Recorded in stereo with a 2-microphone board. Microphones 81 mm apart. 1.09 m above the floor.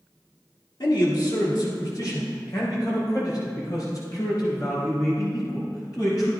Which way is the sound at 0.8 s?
60° left (ahead or behind).